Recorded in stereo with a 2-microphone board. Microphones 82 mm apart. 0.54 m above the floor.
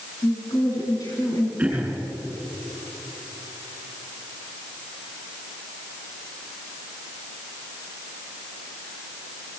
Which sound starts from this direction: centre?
Throat clearing, at 1.6 s.